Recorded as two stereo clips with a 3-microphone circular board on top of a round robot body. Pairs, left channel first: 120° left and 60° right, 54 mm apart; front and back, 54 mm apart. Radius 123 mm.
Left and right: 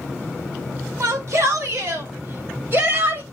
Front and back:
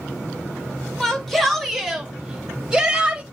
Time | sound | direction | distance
1.0 | a shout | 85° right | 4.5 m